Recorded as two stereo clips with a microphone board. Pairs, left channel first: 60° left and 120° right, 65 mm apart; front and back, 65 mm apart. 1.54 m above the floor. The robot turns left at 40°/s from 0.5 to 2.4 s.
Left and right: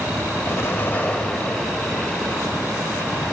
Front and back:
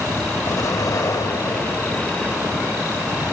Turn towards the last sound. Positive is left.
turn(degrees=-60)